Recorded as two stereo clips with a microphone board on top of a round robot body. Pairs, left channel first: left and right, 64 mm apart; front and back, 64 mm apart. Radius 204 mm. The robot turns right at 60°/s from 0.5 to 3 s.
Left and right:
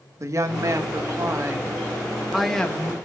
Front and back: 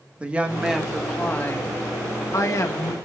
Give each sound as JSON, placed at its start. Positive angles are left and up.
{"t": 0.2, "sound": "a woman speaking", "azimuth_deg": -115, "distance_m": 1.5}